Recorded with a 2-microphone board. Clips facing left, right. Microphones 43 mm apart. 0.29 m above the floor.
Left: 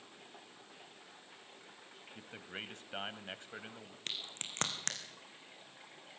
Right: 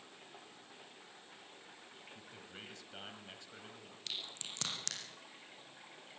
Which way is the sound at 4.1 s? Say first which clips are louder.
Left 1 dB; 40° left (ahead or behind).